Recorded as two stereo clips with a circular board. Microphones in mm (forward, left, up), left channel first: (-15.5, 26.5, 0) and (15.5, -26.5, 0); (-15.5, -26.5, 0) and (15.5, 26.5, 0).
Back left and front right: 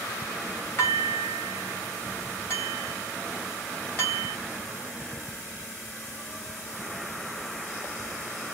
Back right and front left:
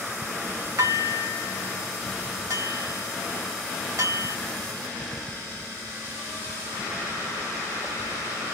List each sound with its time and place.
0.8 s dishes clattering: 70° left, 2.0 m